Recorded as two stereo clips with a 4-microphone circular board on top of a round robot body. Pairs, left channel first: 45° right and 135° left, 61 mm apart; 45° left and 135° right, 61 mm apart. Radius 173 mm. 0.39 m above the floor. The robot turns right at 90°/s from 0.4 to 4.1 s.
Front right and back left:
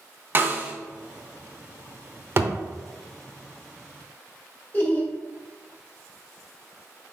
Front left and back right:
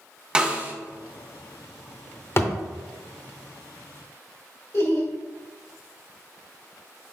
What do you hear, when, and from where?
0.3 s a snare drum: 155° left, 0.9 m; by 0.7 s 175° right, 0.9 m
2.4 s a thud: 85° left, 0.8 m; by 2.5 s 100° left, 0.8 m
4.7 s laughter: 10° left, 1.7 m